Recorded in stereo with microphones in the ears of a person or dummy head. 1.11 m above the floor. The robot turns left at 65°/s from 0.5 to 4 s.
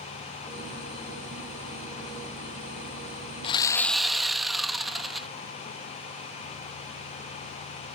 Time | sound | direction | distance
3.4 | sawing | 35° left | 0.6 m